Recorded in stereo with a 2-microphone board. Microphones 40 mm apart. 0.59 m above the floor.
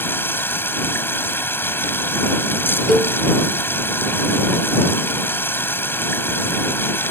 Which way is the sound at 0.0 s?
75° left (ahead or behind).